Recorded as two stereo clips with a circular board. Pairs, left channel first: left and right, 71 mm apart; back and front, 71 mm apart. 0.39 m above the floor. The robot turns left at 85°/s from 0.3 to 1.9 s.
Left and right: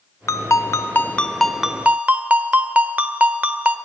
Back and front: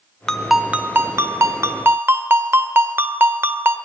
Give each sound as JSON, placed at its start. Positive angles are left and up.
{"t": 0.3, "sound": "a ringtone", "azimuth_deg": 100, "distance_m": 0.7}